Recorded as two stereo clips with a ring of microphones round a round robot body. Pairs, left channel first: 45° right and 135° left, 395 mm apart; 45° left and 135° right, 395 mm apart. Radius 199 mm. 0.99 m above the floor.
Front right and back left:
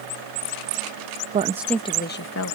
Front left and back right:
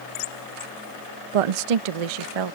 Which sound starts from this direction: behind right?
A woman speaking, at 1.3 s.